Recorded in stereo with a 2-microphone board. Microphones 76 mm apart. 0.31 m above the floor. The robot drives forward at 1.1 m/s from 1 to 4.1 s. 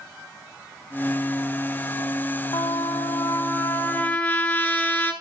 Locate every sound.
2.5 s a trumpet: 65° left (ahead or behind), 0.7 m; by 5.1 s 20° left (ahead or behind), 1.7 m